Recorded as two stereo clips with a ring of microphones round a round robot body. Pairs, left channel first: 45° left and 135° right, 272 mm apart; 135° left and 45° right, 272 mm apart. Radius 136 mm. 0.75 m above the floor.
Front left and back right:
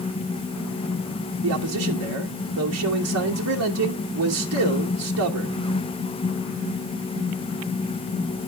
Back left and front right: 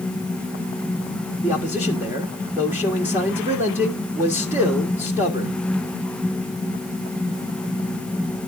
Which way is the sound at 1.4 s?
125° right.